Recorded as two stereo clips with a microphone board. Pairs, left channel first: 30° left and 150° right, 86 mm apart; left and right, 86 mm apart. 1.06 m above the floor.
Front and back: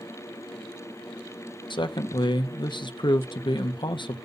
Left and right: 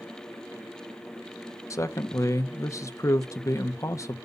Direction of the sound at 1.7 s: 40° left.